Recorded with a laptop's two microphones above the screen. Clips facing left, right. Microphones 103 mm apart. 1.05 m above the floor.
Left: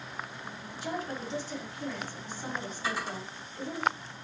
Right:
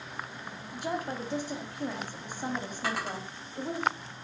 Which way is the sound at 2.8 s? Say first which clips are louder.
Right 1 dB; 70° right (ahead or behind).